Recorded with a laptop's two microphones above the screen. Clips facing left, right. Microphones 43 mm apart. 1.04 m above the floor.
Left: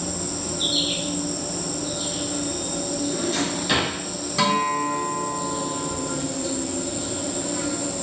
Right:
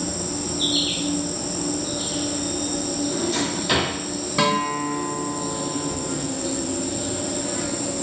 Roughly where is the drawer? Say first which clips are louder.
Even; centre.